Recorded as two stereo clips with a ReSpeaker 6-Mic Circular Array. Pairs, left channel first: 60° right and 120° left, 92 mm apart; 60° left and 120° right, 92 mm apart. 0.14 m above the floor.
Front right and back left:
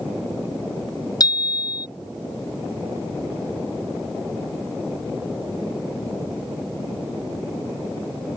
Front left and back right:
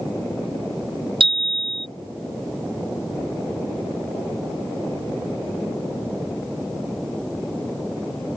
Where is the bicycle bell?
105° right.